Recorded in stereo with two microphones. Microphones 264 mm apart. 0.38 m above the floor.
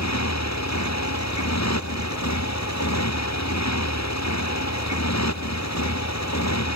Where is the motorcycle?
85° left.